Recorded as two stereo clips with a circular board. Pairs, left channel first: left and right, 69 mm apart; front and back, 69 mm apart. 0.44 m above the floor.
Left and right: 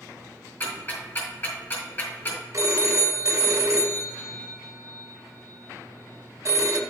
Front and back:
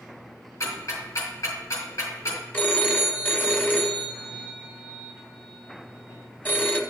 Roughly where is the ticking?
Ahead left.